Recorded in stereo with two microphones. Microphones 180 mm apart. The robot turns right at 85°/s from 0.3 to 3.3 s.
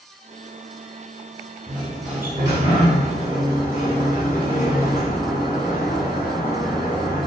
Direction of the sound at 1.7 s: 160° left.